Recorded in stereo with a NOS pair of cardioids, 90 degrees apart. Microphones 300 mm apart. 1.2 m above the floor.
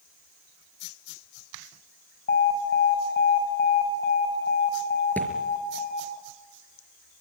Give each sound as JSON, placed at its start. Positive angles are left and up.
{"t": 2.3, "sound": "an alarm", "azimuth_deg": 35, "distance_m": 8.5}
{"t": 5.2, "sound": "a thud", "azimuth_deg": 5, "distance_m": 4.5}